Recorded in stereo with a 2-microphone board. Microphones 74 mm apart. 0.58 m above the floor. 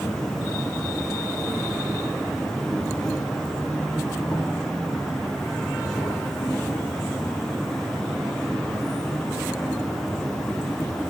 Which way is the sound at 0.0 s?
10° left (ahead or behind).